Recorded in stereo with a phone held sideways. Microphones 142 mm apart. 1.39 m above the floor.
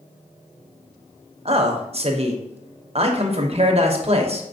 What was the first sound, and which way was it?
A man speaking, 45° right (ahead or behind).